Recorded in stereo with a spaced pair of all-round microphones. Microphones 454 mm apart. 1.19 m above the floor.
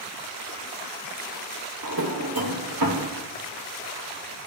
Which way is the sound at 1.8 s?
50° right (ahead or behind).